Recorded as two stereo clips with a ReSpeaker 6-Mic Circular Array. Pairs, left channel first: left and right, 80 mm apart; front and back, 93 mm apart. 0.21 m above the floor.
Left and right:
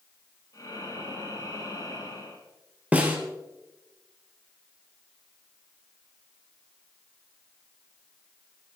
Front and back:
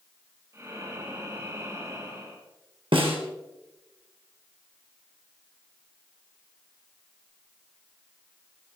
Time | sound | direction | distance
0.5 | breathing | 125° left | 5.5 m
2.9 | a snare drum | 160° right | 3 m